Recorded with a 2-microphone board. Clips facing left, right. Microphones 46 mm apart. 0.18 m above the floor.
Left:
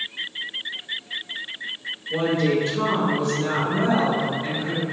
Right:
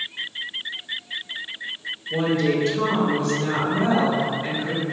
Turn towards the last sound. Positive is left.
turn(degrees=-20)  # may be behind; listen again after turning